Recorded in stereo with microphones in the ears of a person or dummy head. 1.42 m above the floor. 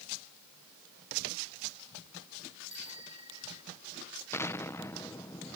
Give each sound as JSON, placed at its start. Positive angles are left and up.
{"t": 2.7, "sound": "a bicycle bell", "side_deg": 35}
{"t": 4.3, "sound": "an explosion", "side_deg": 10}